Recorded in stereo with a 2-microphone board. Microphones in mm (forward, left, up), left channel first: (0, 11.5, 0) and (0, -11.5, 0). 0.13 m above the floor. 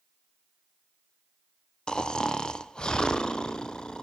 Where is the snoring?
35° left (ahead or behind), 1.0 m.